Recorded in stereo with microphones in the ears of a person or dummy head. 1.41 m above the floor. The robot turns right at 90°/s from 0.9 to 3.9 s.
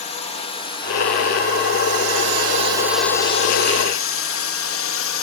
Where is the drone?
30° left (ahead or behind); by 5.2 s 60° left (ahead or behind).